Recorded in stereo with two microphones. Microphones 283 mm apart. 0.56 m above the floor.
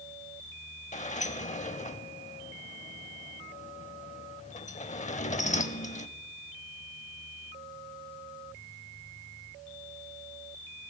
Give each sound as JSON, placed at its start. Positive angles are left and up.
{"t": 0.9, "sound": "a sliding door", "side_deg": 25, "distance_m": 0.6}